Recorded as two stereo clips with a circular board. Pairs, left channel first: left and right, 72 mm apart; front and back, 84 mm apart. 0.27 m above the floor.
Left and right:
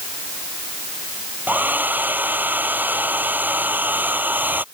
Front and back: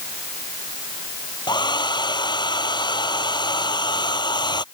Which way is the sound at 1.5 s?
25° right.